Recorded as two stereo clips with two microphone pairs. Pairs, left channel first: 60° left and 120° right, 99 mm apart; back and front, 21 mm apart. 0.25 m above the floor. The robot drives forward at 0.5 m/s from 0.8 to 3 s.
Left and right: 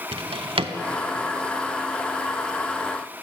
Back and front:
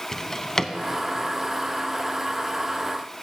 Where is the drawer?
120° right, 0.6 m.